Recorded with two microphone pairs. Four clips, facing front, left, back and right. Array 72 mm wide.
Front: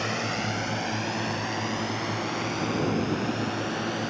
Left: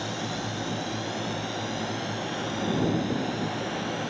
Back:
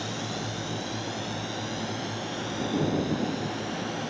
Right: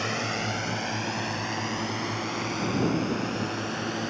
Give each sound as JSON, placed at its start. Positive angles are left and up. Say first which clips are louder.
{"t": 0.0, "sound": "a drone", "louder": "right 2 dB, front 4 dB", "azimuth_deg": -55}